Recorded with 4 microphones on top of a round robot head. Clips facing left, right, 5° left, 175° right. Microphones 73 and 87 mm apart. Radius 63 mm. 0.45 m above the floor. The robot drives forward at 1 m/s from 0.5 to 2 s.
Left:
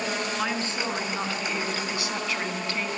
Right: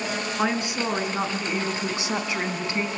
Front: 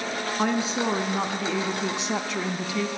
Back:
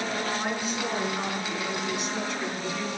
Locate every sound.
0.4 s a woman speaking: 15° right, 5 m; by 2.9 s 20° right, 3.5 m